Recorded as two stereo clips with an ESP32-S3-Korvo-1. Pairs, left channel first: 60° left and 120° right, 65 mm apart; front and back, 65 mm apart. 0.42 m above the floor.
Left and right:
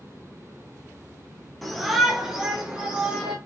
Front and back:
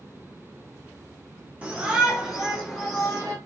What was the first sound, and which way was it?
A shout, 150° left.